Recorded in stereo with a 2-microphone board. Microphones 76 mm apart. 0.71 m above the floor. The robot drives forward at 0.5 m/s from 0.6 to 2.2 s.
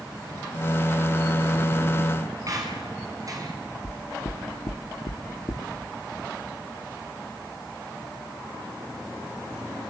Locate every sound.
2.5 s a squeak: 45° right (ahead or behind), 5 m
3.8 s knocking: 50° left (ahead or behind), 1.3 m